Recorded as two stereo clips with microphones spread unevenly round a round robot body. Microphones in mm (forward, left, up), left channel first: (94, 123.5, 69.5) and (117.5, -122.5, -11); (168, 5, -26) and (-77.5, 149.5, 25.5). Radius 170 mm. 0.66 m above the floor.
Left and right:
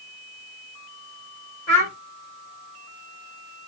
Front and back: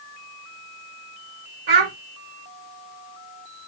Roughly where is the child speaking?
Behind.